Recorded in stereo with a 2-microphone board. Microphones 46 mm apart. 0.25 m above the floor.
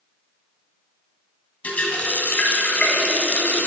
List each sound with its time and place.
1.6 s a running tap: 35° left (ahead or behind), 1.0 m